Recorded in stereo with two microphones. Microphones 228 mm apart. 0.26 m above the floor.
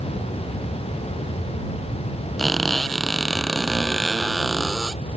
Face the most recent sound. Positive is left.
turn(degrees=0)  # may be behind; listen again after turning